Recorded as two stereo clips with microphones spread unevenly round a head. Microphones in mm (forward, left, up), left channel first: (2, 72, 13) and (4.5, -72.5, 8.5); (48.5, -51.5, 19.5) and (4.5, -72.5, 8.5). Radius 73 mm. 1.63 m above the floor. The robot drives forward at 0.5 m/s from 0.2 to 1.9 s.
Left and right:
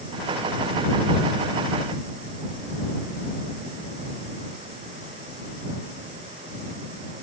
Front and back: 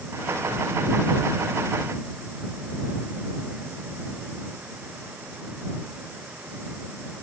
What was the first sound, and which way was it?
Only background noise.